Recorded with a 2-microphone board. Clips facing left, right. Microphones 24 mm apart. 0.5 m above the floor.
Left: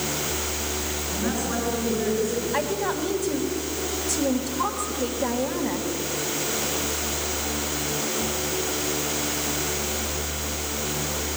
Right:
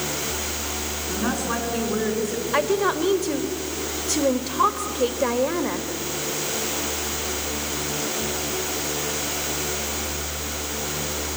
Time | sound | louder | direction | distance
1.1 | a woman speaking | right 3 dB | 75° right (ahead or behind) | 6.5 m
2.5 | a woman speaking | right 4 dB | 50° right (ahead or behind) | 1.6 m